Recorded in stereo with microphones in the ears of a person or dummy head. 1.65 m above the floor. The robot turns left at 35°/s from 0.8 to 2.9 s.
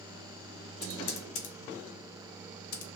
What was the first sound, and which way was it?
Typing on a keyboard, 50° left (ahead or behind).